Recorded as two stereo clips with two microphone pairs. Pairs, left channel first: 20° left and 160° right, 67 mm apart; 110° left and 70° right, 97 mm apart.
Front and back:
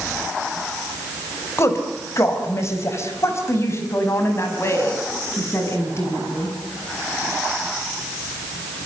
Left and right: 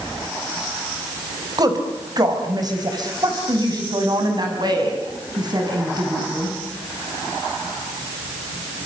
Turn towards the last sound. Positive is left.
turn(degrees=-30)